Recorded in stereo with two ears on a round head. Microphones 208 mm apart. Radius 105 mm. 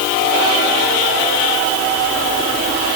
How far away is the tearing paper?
I don't hear tearing paper.